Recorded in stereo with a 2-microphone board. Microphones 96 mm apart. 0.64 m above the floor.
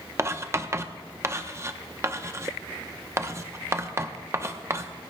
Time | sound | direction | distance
0.2 | writing | 30° right (ahead or behind) | 0.7 m